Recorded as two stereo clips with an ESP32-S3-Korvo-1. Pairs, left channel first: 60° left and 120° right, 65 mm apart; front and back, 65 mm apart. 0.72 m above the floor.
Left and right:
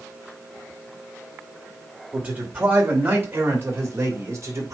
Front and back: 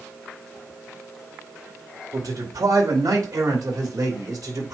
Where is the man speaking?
175° left, 3 m; by 4.7 s 160° right, 3.5 m.